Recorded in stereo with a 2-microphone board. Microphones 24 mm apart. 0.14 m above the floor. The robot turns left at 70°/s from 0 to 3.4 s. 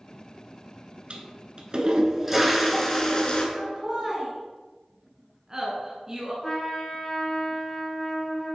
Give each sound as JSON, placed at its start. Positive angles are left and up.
{"t": 1.1, "sound": "a toilet flushing", "azimuth_deg": -80, "distance_m": 1.4}
{"t": 3.5, "sound": "laughter", "side_deg": -25, "distance_m": 1.6}
{"t": 6.4, "sound": "a trumpet", "side_deg": 20, "distance_m": 2.0}